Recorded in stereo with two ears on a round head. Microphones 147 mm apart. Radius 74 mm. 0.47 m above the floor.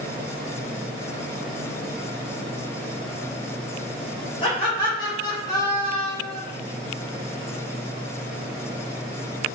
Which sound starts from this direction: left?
Laughter, at 4.4 s.